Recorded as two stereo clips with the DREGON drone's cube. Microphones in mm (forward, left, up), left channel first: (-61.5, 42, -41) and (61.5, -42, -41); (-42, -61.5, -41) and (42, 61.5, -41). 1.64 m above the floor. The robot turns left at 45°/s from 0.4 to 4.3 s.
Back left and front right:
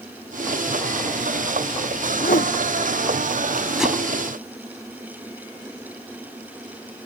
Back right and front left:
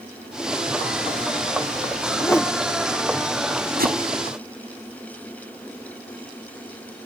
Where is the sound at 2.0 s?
175° left; by 2.5 s 155° left.